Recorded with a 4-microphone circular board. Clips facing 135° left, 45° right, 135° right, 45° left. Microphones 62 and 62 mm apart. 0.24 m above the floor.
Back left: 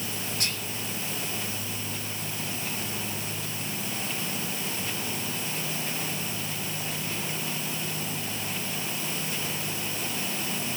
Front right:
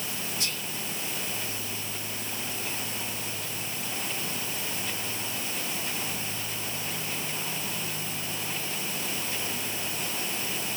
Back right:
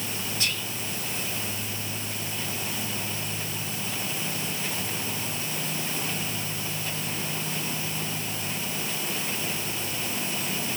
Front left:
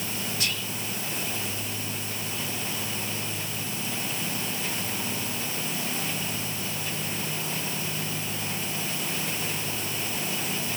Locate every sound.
0.4 s whispering: 130° left, 4 m